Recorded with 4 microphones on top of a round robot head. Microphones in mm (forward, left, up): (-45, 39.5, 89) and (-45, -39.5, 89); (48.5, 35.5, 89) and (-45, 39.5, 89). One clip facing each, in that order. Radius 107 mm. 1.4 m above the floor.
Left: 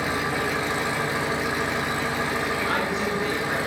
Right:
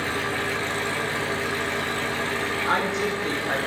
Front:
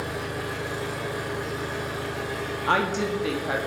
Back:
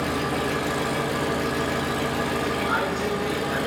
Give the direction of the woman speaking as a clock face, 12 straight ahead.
1 o'clock.